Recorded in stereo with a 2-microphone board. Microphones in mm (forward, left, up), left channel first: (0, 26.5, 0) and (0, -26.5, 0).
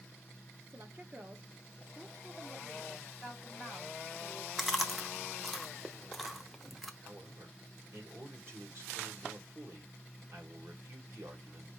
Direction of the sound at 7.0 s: 55° right (ahead or behind).